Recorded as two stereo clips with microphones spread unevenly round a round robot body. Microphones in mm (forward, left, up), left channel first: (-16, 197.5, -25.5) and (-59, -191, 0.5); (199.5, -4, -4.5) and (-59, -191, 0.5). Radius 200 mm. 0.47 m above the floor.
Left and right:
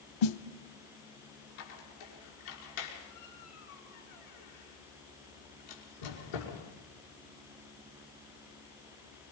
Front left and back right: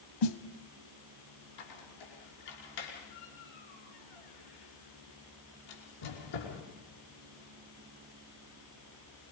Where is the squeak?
65° left, 5.5 m.